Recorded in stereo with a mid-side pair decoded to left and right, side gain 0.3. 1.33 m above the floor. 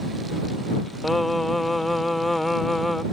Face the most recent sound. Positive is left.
turn(degrees=20)